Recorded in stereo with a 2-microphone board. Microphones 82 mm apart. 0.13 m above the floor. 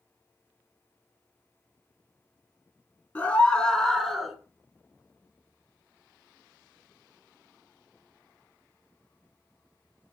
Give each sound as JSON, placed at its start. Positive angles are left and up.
{"t": 3.1, "sound": "a scream", "side_deg": 20, "distance_m": 1.4}